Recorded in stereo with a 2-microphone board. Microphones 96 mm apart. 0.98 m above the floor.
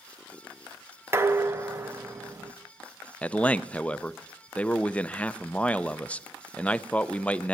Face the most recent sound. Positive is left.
turn(degrees=15)  # may be behind; listen again after turning